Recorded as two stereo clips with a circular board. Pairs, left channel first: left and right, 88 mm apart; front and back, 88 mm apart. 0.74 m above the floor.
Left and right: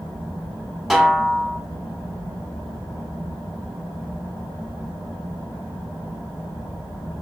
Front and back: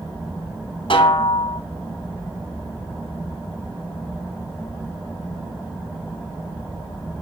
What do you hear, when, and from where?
0.9 s a snare drum: straight ahead, 1.6 m